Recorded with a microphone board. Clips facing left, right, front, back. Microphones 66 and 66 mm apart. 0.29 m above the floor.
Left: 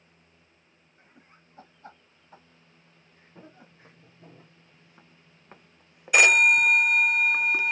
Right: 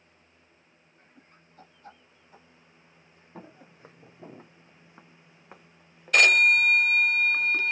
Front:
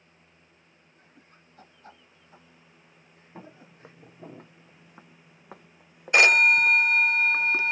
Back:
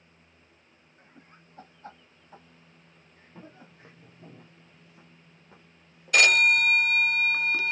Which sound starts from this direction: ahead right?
Footsteps, at 3.4 s.